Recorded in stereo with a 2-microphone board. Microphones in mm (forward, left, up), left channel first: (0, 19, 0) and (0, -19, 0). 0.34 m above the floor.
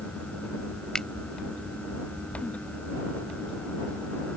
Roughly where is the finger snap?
Centre.